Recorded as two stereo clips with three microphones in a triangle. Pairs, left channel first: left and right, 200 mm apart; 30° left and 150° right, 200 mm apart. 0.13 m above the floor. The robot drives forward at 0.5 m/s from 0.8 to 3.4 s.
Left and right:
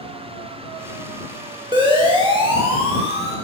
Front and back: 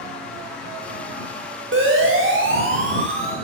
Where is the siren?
155° right, 9.5 m; by 3.4 s 150° right, 10.5 m.